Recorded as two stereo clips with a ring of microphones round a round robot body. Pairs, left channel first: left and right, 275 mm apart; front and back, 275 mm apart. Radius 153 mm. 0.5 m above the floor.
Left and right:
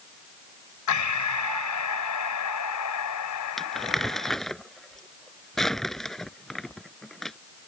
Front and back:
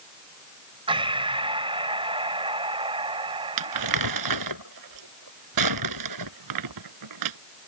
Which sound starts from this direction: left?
Breathing, at 0.9 s.